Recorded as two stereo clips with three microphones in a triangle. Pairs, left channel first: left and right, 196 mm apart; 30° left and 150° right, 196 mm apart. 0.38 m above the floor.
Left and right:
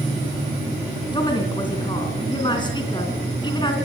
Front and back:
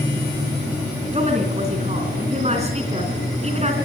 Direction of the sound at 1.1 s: 155° left.